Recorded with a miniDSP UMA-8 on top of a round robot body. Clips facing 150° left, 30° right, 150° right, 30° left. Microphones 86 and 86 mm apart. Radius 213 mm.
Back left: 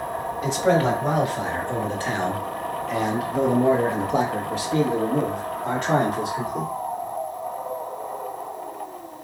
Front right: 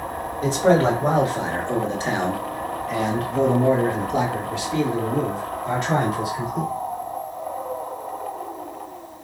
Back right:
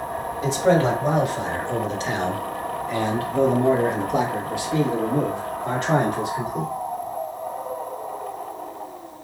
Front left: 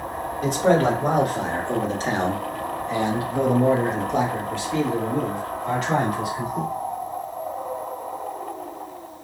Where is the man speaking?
5° left, 2.0 m; by 6.7 s 160° left, 2 m.